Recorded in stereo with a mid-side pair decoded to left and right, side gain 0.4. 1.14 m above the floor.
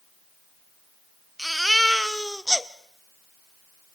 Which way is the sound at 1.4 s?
Straight ahead.